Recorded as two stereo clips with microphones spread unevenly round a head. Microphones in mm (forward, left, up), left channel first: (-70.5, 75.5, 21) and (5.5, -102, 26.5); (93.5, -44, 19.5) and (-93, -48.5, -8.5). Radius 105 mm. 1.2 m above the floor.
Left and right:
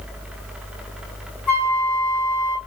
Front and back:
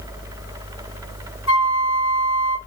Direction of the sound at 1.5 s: 40° left.